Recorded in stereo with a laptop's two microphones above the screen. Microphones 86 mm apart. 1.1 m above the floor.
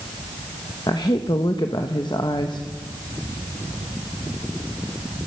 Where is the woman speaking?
55° left (ahead or behind), 1.0 m.